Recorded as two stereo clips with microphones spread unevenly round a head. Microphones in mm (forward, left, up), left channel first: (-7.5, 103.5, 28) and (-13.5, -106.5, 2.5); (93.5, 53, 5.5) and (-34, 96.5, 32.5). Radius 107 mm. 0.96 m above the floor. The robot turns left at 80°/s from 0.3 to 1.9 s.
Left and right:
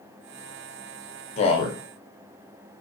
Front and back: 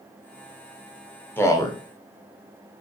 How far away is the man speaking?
About 0.7 m.